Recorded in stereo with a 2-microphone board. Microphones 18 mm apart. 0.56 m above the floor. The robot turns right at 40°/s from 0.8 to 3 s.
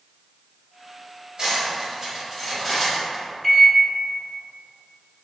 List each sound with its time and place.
1.4 s cutlery clinking: 40° right (ahead or behind), 1.6 m; by 3.2 s 25° left (ahead or behind), 1.6 m
3.4 s a microwave: 10° left (ahead or behind), 0.7 m